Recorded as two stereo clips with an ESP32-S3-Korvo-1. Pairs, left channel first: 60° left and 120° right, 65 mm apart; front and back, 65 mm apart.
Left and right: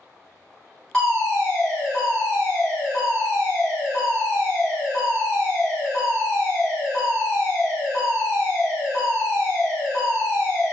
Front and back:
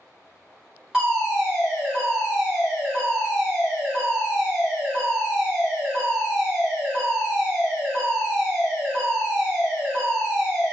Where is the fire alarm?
120° left, 1.9 m.